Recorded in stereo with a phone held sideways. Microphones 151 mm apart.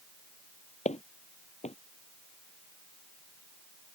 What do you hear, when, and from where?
0.8 s footsteps: 55° left (ahead or behind)